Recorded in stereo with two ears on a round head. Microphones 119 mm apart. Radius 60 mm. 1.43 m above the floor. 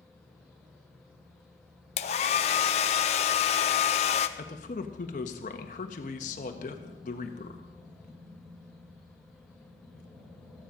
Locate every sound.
2.0 s a hair dryer: 50° left (ahead or behind), 0.7 m
4.4 s a man speaking: 60° left (ahead or behind), 1.4 m